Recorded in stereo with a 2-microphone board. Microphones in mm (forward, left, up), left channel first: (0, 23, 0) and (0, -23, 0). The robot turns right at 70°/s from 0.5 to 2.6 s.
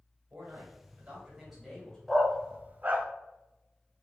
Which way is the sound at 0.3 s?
75° right.